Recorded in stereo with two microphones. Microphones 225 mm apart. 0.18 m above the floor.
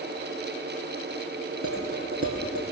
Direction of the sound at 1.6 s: 75° right (ahead or behind).